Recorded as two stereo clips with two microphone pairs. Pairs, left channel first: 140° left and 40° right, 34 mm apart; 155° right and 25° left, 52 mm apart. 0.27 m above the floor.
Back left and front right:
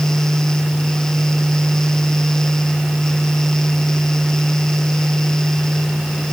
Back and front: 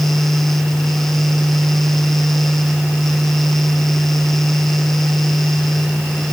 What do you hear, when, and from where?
Only background noise.